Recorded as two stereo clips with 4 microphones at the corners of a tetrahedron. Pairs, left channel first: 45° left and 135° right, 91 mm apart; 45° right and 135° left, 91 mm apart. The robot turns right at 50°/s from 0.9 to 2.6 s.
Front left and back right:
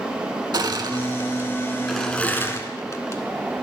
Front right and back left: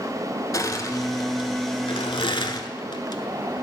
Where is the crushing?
95° right, 0.7 m; by 3.2 s 10° right, 0.7 m.